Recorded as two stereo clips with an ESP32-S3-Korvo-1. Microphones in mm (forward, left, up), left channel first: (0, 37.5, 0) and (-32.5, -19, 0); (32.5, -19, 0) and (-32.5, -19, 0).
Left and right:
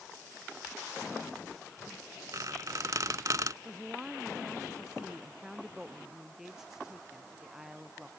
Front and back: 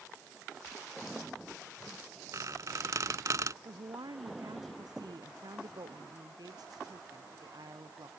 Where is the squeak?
150° right.